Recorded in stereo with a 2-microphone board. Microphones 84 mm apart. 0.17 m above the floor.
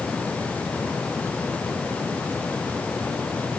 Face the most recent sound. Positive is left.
No sound to turn to.